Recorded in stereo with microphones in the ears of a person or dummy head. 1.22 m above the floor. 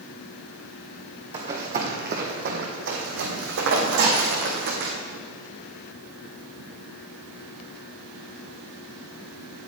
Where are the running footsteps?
40° right (ahead or behind), 3 m; by 4.9 s 55° right (ahead or behind), 4 m.